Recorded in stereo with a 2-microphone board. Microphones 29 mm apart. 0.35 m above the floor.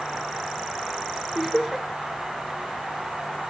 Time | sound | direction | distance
1.4 | laughter | 5° right (ahead or behind) | 0.8 m